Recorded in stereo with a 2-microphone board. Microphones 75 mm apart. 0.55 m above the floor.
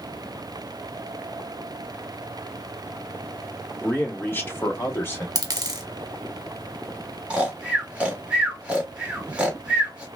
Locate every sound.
3.8 s a man speaking: 15° left (ahead or behind), 0.8 m; by 5.2 s 30° left (ahead or behind), 1.2 m
5.3 s a dropped coin: 60° right (ahead or behind), 1.0 m
7.3 s snoring: 15° right (ahead or behind), 0.9 m